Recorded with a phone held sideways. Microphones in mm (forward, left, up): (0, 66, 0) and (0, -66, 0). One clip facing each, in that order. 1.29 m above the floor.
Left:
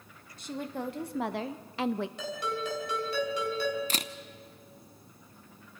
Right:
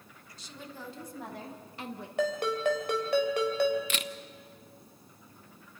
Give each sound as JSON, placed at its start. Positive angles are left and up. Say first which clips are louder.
{"t": 0.4, "sound": "a woman speaking", "louder": "left 10 dB", "side_deg": 50, "distance_m": 1.6}
{"t": 2.2, "sound": "a ringtone", "louder": "right 6 dB", "side_deg": -60, "distance_m": 3.5}
{"t": 3.9, "sound": "a camera shutter", "louder": "even", "side_deg": 35, "distance_m": 0.6}